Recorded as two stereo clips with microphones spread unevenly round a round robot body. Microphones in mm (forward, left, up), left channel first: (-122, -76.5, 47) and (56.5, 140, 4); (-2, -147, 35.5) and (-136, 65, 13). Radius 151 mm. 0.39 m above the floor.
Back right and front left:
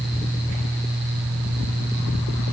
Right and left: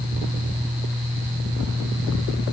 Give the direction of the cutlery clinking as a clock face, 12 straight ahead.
No cutlery clinking in this recording.